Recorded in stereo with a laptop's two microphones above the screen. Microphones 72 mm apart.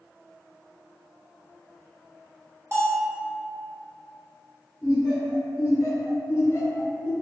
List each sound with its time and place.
2.7 s a bell: 35° right (ahead or behind), 1.0 m
4.8 s laughter: 40° left (ahead or behind), 1.1 m